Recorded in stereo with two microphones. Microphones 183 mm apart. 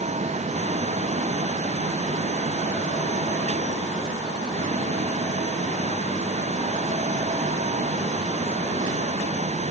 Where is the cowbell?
No cowbell in this recording.